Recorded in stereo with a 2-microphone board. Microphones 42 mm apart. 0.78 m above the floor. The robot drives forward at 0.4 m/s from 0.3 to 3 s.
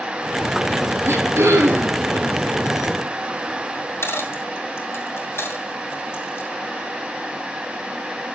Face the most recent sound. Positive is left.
turn(degrees=75)  # may be behind; listen again after turning